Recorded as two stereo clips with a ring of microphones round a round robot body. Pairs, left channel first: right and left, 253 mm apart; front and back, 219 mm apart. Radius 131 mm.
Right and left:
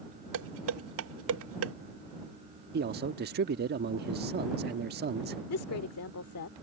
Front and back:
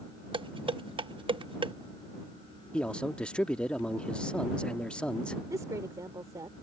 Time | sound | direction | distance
0.3 | dishes clattering | 115° left | ?
2.7 | a man speaking | 85° left | ?
5.5 | a woman speaking | 105° right | ?